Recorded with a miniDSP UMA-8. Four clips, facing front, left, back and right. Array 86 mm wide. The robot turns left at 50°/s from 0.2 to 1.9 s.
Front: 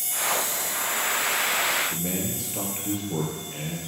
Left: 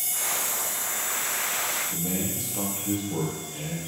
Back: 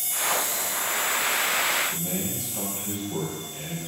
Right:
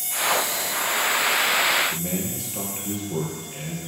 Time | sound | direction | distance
1.9 | a man speaking | 35° right | 4 m